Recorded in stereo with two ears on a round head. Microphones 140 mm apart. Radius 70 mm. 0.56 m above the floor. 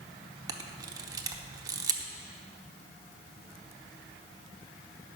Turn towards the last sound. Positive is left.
turn(degrees=-25)  # may be behind; listen again after turning